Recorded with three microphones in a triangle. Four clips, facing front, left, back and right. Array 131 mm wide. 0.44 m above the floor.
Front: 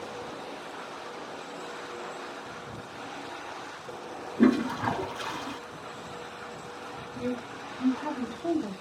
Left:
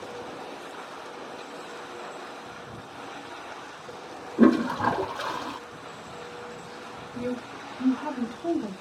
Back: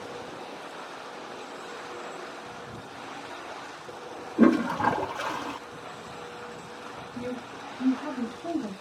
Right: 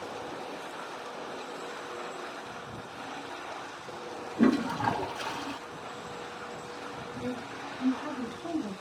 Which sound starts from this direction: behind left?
A toilet flushing, at 4.4 s.